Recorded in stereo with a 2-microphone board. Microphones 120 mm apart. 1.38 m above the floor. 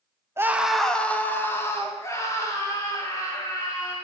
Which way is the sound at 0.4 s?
20° right (ahead or behind).